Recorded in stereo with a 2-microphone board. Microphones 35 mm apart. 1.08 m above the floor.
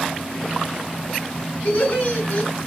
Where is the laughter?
50° left (ahead or behind), 3.5 m.